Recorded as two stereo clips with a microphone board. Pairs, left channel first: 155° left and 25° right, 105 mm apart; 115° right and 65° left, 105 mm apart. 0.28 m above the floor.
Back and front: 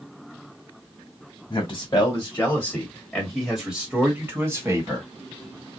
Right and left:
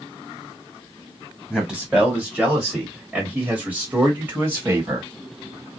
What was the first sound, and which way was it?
A man speaking, 155° left.